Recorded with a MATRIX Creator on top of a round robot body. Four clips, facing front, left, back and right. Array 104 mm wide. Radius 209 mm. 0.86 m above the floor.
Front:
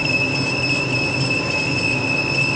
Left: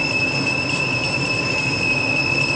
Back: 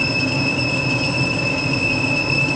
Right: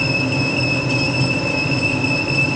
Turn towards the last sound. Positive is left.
No sound to turn to.